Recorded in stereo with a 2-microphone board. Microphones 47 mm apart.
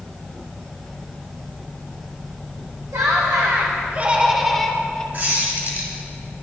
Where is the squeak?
40° right (ahead or behind), 2 m.